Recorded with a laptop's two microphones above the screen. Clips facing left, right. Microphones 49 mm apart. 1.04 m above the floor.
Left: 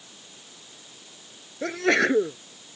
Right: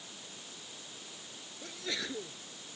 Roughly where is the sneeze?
Left.